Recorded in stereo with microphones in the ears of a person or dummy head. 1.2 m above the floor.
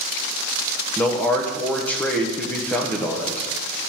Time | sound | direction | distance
1.0 | a man speaking | 5° left (ahead or behind) | 0.9 m